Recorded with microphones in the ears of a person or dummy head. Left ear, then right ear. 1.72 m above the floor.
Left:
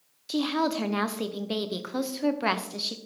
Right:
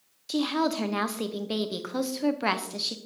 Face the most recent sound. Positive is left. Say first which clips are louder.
# even
turn(degrees=0)  # may be behind; listen again after turning